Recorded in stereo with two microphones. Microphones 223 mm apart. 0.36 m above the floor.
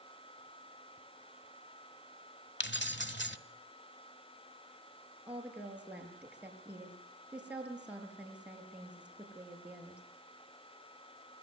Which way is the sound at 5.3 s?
5° right (ahead or behind).